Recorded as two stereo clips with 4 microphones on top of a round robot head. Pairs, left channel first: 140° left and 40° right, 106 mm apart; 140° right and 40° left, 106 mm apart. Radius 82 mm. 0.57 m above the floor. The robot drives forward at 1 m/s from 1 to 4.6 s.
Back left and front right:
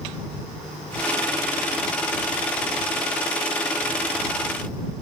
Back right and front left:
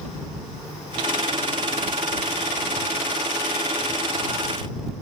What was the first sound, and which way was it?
Only background noise.